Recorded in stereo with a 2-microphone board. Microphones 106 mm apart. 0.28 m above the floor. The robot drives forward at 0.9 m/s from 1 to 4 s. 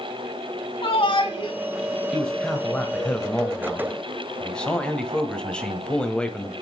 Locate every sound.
0.8 s a shout: 55° left (ahead or behind), 2.5 m; by 1.6 s 50° left (ahead or behind), 2.5 m
2.1 s a man speaking: 5° left (ahead or behind), 1.3 m; by 6.5 s 10° left (ahead or behind), 1.1 m